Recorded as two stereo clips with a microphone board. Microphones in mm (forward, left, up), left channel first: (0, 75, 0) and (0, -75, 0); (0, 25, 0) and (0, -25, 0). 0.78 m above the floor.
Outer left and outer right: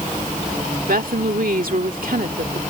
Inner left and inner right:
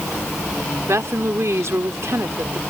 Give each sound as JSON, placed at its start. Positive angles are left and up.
{"t": 0.9, "sound": "a woman speaking", "side_deg": -75}